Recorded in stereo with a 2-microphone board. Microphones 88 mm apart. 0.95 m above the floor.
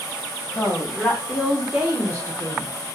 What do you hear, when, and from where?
0.6 s a woman speaking: 25° left (ahead or behind), 0.9 m; by 2.7 s 45° right (ahead or behind), 0.8 m